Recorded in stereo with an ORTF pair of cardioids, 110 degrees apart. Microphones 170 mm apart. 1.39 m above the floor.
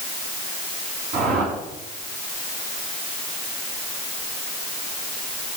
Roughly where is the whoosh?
Ahead right.